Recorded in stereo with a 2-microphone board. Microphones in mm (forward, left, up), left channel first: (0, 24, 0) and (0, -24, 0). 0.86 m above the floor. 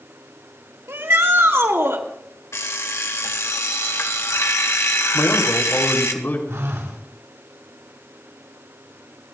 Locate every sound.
0.9 s a shout: 65° right (ahead or behind), 2.5 m
2.5 s an alarm clock: 75° left (ahead or behind), 1.5 m
5.1 s a man speaking: 50° left (ahead or behind), 3.5 m
6.5 s a phone buzzing: 80° right, 4.5 m